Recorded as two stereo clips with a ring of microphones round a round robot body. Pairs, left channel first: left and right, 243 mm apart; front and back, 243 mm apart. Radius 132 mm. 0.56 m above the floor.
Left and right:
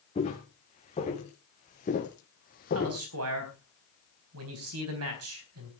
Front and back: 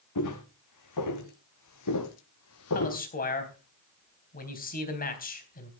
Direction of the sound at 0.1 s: 20° left.